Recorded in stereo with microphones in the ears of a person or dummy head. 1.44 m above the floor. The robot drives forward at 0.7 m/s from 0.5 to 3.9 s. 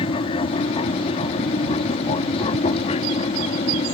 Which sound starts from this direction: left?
An aircraft, at 0.0 s.